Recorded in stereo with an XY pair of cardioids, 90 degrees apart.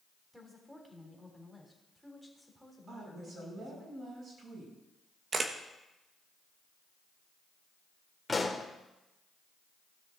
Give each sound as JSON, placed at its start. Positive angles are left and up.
{"t": 0.3, "sound": "a woman speaking", "azimuth_deg": -5, "distance_m": 3.5}
{"t": 2.9, "sound": "a woman speaking", "azimuth_deg": -50, "distance_m": 7.0}
{"t": 5.3, "sound": "a camera shutter", "azimuth_deg": -45, "distance_m": 1.2}
{"t": 8.3, "sound": "a pop", "azimuth_deg": 20, "distance_m": 1.9}